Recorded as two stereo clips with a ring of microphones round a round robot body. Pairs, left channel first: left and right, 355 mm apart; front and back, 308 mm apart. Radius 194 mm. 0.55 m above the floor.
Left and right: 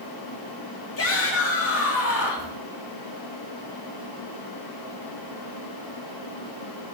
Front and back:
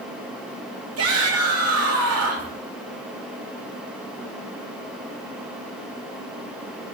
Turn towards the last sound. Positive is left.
turn(degrees=145)